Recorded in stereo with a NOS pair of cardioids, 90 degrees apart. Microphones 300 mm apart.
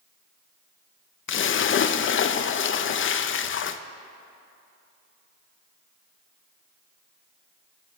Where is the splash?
45° left, 0.6 m.